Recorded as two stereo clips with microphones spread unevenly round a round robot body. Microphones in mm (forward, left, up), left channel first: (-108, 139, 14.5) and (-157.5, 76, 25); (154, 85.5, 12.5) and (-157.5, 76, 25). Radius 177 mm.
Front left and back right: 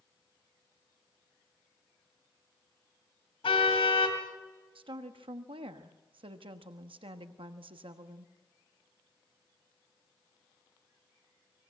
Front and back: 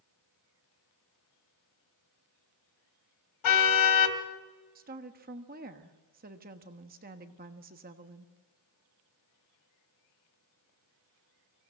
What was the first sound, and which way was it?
A car horn, 20° left.